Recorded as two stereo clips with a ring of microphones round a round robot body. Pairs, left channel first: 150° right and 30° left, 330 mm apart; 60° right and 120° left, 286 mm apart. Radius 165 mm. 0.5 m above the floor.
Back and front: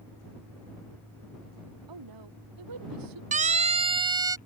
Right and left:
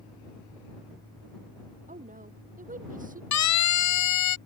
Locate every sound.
1.9 s a woman speaking: 55° left; by 3.2 s 60° left
3.3 s a siren: 40° right; by 4.4 s 50° right